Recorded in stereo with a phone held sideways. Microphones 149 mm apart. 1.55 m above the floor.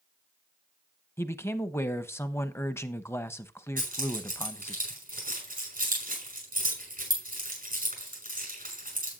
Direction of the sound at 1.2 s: 15° left (ahead or behind).